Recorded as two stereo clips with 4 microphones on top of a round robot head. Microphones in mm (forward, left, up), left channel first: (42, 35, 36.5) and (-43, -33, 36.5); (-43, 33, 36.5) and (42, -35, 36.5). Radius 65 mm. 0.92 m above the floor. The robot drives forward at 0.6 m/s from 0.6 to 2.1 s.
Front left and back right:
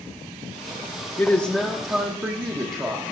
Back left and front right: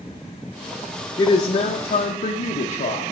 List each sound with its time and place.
1.2 s a woman speaking: 100° left, 0.6 m; by 3.1 s 150° left, 0.9 m